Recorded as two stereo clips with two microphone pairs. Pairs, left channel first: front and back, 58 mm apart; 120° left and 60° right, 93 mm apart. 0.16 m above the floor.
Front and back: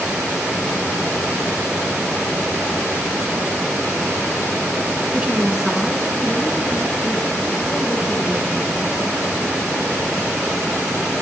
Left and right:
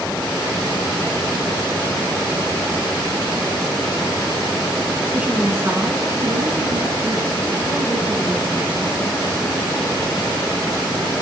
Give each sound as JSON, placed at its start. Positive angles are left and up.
{"t": 5.1, "sound": "a woman speaking", "azimuth_deg": -135, "distance_m": 2.0}